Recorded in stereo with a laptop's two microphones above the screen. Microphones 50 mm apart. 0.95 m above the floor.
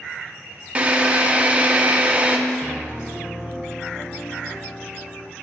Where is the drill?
25° right (ahead or behind), 0.8 m.